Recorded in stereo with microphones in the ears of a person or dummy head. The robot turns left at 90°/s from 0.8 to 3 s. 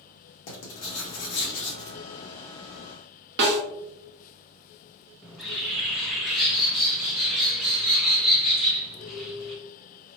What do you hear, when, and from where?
0.5 s writing: 110° left, 0.9 m; by 2.0 s 5° left, 0.9 m
3.4 s a snare drum: 65° right (ahead or behind), 0.9 m
5.2 s a bird: centre (ahead or behind), 0.5 m